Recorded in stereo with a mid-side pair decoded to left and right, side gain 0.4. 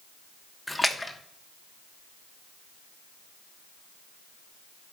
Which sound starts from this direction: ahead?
A splash, at 0.7 s.